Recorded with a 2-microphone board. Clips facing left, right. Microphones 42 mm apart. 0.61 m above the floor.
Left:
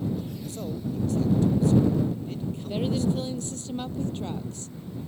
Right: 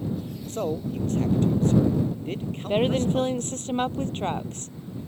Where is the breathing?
I don't hear breathing.